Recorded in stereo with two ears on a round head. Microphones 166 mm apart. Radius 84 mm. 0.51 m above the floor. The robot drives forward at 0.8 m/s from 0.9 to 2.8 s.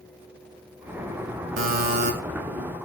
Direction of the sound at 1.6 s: 50° right (ahead or behind).